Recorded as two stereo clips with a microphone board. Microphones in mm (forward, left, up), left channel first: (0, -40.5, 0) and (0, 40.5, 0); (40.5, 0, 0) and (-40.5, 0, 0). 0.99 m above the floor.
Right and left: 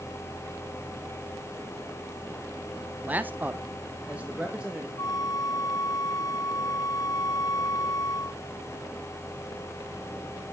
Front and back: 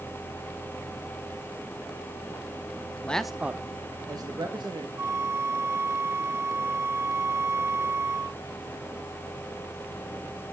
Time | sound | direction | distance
3.0 | a man speaking | 50° left | 0.5 m
5.0 | a flute | 125° right | 0.5 m